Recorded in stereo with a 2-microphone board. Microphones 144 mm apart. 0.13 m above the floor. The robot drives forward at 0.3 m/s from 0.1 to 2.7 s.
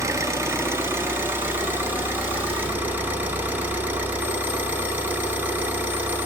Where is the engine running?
20° right (ahead or behind), 0.9 m; by 6.3 s 10° right (ahead or behind), 1.6 m.